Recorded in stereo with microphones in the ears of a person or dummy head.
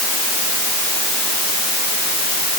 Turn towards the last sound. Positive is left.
No sound to turn to.